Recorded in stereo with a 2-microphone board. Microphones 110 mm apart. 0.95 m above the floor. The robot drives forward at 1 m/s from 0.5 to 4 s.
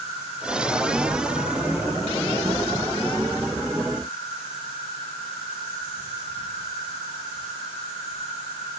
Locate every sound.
0.0 s an insect: 80° left, 5 m; by 8.8 s 60° left (ahead or behind), 6 m